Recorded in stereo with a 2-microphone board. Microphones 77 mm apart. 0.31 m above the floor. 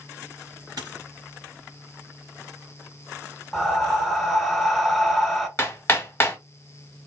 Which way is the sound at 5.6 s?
30° left (ahead or behind).